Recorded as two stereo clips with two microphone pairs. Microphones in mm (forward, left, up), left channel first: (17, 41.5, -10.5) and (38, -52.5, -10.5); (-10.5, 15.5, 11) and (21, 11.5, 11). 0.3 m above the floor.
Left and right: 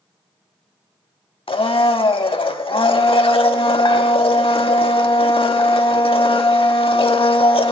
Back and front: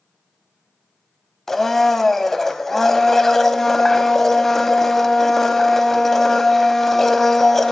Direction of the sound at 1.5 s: 95° left.